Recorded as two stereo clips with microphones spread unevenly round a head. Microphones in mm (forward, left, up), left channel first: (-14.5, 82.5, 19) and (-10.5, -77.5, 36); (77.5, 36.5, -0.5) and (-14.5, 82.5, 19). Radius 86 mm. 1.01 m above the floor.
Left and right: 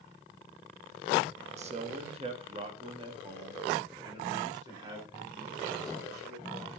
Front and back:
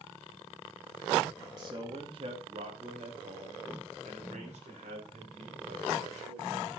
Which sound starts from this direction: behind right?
A man speaking, at 1.6 s.